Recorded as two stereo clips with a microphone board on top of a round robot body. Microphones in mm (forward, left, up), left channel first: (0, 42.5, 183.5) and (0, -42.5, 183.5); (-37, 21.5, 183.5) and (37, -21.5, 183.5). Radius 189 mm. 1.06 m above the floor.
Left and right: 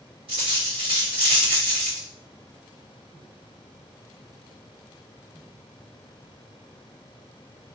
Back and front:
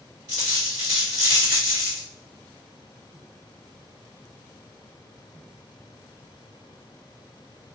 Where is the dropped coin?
75° right, 1.5 m.